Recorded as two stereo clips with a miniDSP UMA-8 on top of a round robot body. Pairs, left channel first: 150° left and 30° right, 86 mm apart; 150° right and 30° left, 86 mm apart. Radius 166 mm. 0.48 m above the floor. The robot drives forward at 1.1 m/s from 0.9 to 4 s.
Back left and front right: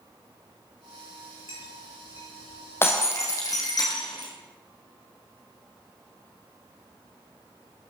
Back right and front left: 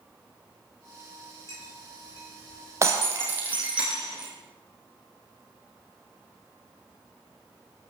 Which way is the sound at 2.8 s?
85° left.